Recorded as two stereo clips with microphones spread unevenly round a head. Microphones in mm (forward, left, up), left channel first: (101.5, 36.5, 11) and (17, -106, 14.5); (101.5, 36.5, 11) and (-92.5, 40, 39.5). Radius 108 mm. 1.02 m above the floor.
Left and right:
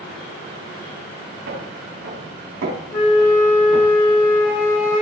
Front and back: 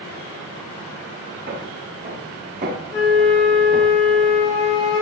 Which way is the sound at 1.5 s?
120° right.